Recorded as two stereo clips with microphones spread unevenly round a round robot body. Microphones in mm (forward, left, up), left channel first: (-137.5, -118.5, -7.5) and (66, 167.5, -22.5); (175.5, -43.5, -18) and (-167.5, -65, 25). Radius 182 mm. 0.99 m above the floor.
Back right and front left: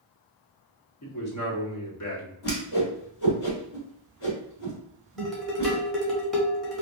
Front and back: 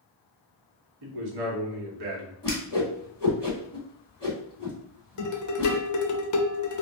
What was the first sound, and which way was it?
A man speaking, 165° right.